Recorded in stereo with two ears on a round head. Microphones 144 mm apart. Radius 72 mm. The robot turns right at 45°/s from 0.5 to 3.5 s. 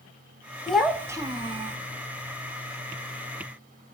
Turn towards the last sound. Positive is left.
turn(degrees=-55)